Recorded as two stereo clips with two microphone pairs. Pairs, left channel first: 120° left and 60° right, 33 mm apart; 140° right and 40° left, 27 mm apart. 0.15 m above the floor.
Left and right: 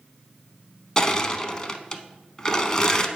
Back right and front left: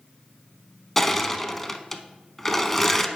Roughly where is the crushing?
Behind left.